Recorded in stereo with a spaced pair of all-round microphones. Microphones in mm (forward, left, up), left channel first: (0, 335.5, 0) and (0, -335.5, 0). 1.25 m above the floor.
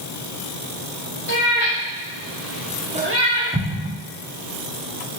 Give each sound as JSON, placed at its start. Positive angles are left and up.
{"t": 1.3, "sound": "a cat meowing", "side_deg": 50, "distance_m": 1.3}
{"t": 3.5, "sound": "an explosion", "side_deg": -15, "distance_m": 0.5}